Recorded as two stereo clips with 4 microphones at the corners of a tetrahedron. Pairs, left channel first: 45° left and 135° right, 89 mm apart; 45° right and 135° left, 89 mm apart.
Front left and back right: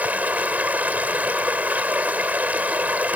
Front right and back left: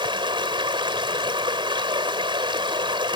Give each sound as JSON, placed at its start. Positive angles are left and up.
{"t": 0.0, "sound": "running water", "azimuth_deg": 155}